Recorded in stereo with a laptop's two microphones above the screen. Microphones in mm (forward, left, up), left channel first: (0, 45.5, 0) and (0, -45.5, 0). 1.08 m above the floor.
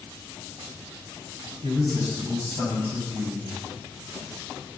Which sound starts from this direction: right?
A man speaking, at 1.6 s.